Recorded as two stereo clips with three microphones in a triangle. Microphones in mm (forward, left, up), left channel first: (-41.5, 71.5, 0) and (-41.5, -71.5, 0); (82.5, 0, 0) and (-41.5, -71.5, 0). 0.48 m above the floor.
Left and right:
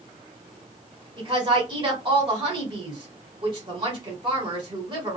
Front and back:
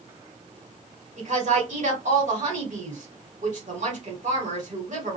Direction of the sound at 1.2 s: 140° right.